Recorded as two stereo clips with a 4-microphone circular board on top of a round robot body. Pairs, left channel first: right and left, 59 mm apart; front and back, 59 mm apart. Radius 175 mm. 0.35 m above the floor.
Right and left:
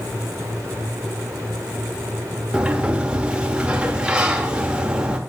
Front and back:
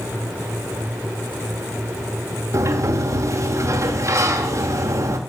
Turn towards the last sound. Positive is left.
turn(degrees=160)